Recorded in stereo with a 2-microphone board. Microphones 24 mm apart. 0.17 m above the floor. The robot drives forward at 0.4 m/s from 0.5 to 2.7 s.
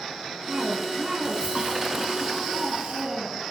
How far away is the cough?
About 2.5 m.